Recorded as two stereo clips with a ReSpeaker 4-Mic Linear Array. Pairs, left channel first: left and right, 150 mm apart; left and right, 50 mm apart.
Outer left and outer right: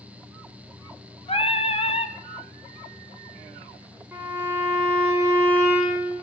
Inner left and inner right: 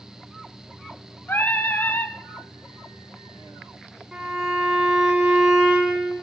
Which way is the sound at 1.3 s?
45° left (ahead or behind).